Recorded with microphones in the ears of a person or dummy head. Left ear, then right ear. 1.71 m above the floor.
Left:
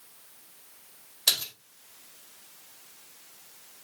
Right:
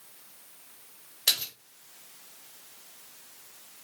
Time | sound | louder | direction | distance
1.3 | a splash | left 1 dB | 15° left (ahead or behind) | 1.5 m